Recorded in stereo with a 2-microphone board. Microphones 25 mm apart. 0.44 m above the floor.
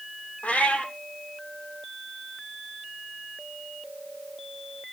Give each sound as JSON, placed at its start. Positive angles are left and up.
{"t": 0.4, "sound": "a cat meowing", "side_deg": 75, "distance_m": 1.5}